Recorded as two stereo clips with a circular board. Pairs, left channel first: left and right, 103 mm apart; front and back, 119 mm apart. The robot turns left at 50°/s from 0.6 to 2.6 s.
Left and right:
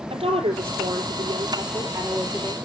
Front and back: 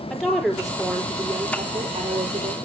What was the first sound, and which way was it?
A woman speaking, 90° right.